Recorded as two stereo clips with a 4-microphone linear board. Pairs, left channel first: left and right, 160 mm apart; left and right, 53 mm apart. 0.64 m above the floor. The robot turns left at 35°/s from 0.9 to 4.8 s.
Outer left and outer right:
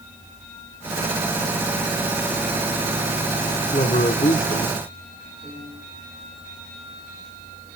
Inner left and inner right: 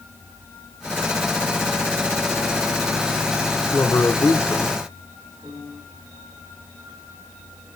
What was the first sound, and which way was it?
A man speaking, 125° left.